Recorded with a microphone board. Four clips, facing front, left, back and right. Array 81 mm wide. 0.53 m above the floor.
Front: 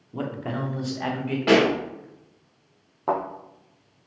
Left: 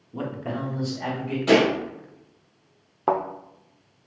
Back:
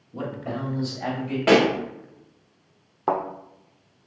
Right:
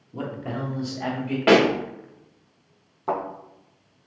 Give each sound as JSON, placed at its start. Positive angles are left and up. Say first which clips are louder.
{"t": 0.1, "sound": "a man speaking", "louder": "left 1 dB, front 1 dB", "azimuth_deg": 20, "distance_m": 0.9}
{"t": 1.5, "sound": "a pop", "louder": "right 2 dB, back 1 dB", "azimuth_deg": -100, "distance_m": 0.9}
{"t": 3.1, "sound": "a thud", "louder": "left 4 dB, back 1 dB", "azimuth_deg": 110, "distance_m": 0.8}